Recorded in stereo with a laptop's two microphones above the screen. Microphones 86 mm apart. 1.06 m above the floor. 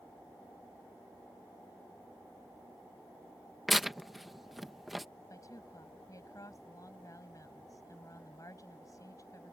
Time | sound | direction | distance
3.7 | tearing paper | centre (ahead or behind) | ?
5.3 | a woman speaking | 40° left (ahead or behind) | ?